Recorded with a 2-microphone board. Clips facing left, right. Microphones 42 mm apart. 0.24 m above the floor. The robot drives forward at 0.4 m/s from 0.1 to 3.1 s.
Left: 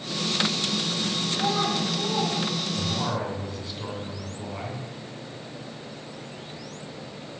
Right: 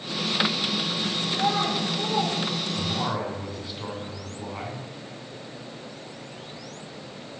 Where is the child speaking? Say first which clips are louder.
Right 1 dB; 10° right (ahead or behind), 2.5 m.